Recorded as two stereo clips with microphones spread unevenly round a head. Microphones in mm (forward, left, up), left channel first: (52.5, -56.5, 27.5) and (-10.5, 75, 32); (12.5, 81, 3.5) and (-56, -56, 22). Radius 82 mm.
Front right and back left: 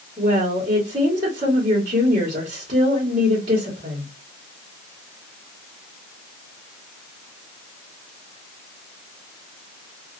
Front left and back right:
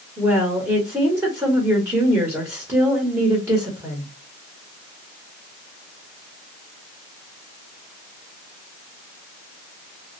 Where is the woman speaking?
175° left, 1.2 m.